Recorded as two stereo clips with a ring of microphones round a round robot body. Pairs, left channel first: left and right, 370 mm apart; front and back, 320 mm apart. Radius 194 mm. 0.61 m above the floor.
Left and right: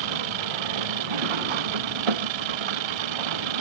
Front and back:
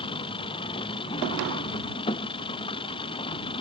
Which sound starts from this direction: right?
An engine running, at 0.0 s.